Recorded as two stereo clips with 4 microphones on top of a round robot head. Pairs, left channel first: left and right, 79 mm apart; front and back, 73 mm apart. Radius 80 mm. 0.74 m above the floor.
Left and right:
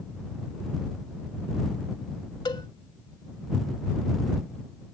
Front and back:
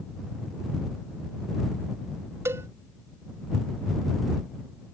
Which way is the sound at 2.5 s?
140° left.